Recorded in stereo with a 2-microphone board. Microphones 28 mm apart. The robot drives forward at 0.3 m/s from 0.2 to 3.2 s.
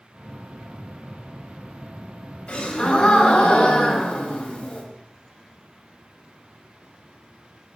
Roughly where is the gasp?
Left.